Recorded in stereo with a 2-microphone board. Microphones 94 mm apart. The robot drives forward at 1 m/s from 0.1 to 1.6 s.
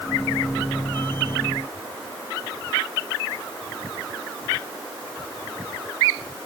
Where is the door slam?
I don't hear a door slam.